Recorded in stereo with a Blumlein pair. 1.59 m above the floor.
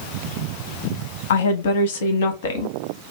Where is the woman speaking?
60° left, 1.0 m.